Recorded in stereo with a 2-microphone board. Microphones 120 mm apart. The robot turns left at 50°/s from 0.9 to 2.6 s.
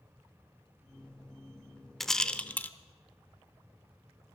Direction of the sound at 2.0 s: Centre (ahead or behind).